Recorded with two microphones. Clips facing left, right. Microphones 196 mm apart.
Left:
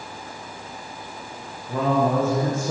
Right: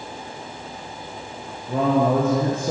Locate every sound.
1.7 s a man speaking: 65° right (ahead or behind), 3.5 m; by 2.7 s 60° right (ahead or behind), 4 m